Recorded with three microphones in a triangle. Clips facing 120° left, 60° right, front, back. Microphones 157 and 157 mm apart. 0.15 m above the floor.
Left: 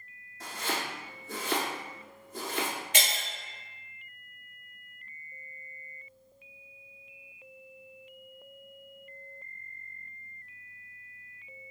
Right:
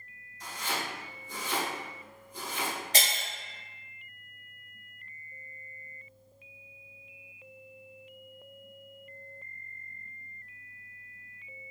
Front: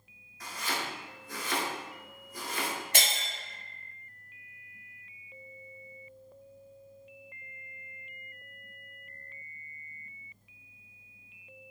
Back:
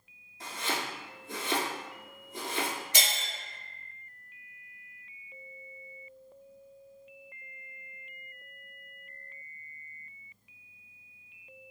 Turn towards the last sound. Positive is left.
turn(degrees=-15)